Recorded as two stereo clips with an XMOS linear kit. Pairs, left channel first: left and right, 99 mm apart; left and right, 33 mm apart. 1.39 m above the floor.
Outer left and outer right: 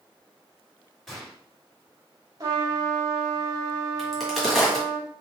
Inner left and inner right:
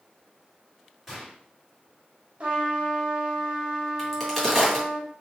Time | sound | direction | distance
1.1 | a gunshot | centre (ahead or behind) | 2.5 m
2.4 | a trumpet | 35° right (ahead or behind) | 1.5 m
4.0 | a crack | centre (ahead or behind) | 1.9 m